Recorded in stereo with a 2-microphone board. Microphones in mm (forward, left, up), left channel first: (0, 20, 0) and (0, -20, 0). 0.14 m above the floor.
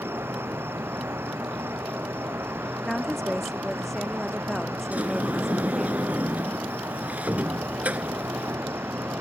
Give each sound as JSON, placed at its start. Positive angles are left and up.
{"t": 0.0, "sound": "an insect", "side_deg": -85}
{"t": 2.9, "sound": "a woman speaking", "side_deg": 0}
{"t": 4.9, "sound": "a sliding door", "side_deg": -45}